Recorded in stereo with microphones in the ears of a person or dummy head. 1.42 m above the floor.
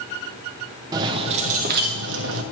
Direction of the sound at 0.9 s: 20° right (ahead or behind).